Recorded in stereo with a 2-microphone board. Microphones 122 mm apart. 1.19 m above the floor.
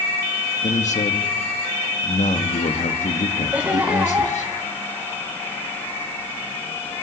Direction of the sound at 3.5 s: 10° right (ahead or behind).